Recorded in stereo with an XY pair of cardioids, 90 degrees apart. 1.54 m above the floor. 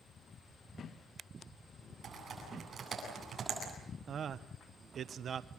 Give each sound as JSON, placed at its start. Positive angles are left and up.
{"t": 2.0, "sound": "typing on a keyboard", "azimuth_deg": -55, "distance_m": 9.0}
{"t": 4.1, "sound": "a man speaking", "azimuth_deg": -65, "distance_m": 1.0}